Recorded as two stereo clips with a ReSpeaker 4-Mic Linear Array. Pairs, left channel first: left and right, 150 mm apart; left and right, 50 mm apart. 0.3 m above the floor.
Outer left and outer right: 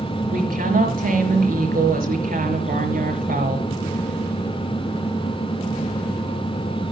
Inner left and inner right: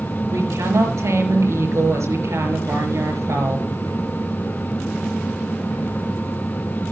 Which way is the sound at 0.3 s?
75° right (ahead or behind).